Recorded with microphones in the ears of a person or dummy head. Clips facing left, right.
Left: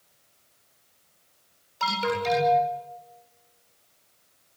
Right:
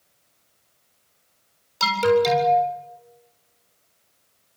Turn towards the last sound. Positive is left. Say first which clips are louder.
# right 9 dB
turn(degrees=-50)  # may be behind; listen again after turning